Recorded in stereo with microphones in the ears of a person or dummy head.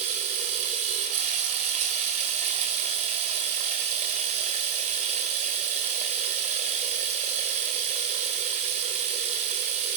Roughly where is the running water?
Right.